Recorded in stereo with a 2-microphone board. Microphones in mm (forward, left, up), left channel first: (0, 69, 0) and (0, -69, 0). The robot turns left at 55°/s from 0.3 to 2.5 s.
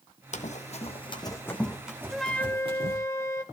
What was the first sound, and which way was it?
Running footsteps, 60° left (ahead or behind).